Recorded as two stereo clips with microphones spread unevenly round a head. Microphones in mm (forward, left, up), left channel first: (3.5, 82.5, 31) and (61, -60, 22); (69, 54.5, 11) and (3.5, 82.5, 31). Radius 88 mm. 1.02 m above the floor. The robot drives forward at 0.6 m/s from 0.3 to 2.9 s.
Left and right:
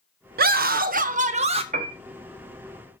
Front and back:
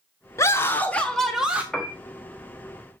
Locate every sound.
0.4 s a scream: 65° right, 0.9 m; by 1.6 s 120° right, 0.9 m
1.7 s a piano: 120° right, 0.7 m; by 2.0 s 130° right, 0.7 m